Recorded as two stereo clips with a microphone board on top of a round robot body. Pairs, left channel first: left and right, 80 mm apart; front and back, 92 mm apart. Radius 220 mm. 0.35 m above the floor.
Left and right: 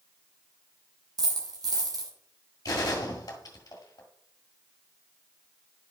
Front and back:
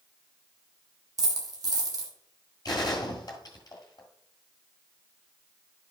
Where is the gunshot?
45° left, 1.8 m.